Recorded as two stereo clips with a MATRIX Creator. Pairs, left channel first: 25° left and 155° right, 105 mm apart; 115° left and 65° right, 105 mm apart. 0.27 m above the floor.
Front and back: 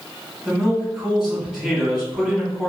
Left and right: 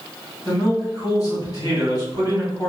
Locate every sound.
0.5 s a man speaking: 125° left, 1.9 m